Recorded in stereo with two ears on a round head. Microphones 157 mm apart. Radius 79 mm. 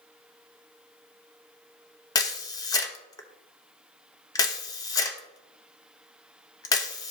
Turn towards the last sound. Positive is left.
turn(degrees=20)  # may be behind; listen again after turning